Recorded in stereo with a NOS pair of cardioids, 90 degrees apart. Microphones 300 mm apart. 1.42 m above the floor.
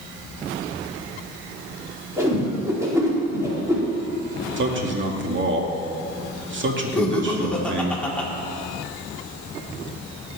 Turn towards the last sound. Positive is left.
turn(degrees=5)